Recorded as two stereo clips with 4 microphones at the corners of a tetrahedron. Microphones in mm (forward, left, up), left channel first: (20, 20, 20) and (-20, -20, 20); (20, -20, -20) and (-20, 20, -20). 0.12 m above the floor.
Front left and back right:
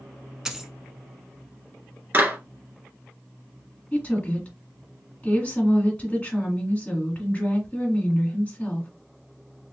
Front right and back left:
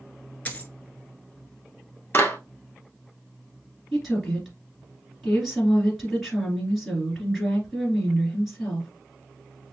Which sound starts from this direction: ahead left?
A woman speaking, at 3.9 s.